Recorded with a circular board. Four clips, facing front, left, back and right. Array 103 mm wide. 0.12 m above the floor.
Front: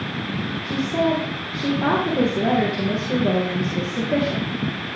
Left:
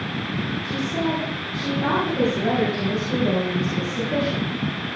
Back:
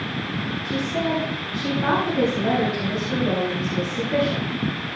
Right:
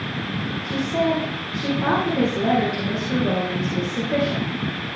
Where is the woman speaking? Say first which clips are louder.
Right 5 dB, front 4 dB; 20° right, 4.5 m.